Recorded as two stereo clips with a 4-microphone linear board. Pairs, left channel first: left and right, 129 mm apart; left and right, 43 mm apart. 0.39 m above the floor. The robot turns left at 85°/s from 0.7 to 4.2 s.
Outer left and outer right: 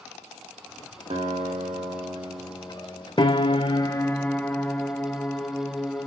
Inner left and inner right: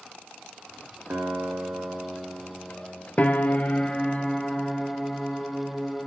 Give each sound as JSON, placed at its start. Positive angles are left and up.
{"t": 1.1, "sound": "a guitar", "azimuth_deg": -50, "distance_m": 5.0}
{"t": 3.2, "sound": "a piano", "azimuth_deg": 110, "distance_m": 0.7}